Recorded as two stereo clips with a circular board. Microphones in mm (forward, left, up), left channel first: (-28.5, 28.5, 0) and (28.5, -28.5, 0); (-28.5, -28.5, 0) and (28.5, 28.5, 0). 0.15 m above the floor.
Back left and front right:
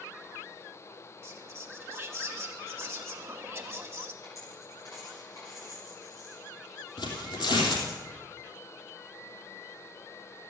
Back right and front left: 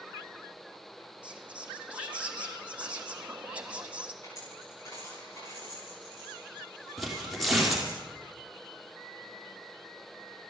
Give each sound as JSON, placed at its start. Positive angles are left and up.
{"t": 1.2, "sound": "whispering", "azimuth_deg": -15, "distance_m": 1.3}
{"t": 4.2, "sound": "a dropped coin", "azimuth_deg": 180, "distance_m": 9.0}
{"t": 7.0, "sound": "tearing paper", "azimuth_deg": 135, "distance_m": 3.5}